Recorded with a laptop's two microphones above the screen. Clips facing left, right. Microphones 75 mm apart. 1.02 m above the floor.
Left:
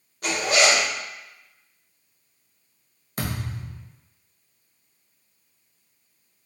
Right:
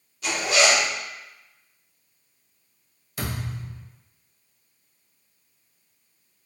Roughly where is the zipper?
Left.